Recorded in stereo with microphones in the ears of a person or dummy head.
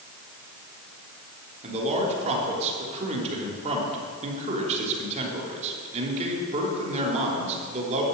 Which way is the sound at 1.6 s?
35° right (ahead or behind).